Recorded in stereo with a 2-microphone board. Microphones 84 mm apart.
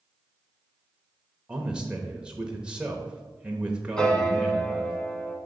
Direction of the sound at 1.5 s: 10° right (ahead or behind).